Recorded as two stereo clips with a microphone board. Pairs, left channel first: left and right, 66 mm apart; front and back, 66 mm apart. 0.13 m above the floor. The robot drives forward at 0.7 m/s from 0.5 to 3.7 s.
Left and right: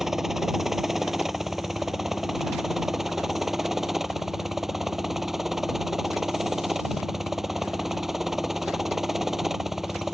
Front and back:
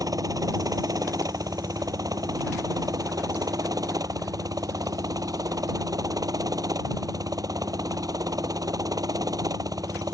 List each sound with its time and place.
0.0 s a helicopter: 175° right